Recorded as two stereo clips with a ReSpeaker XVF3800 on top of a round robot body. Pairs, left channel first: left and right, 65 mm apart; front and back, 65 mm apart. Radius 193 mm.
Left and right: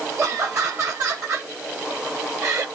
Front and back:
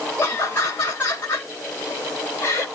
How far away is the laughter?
About 2 m.